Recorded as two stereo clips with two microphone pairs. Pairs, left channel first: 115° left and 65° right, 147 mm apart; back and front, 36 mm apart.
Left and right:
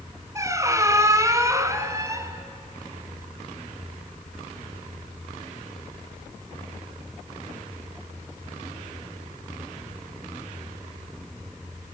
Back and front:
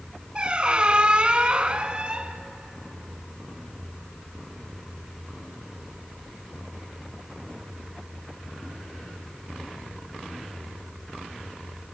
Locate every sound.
0.3 s a squeak: 20° right, 1.0 m